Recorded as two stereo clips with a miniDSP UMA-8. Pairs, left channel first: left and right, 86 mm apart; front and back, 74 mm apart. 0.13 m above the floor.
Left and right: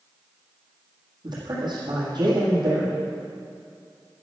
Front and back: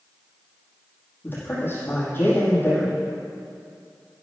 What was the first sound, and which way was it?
A man speaking, 60° right.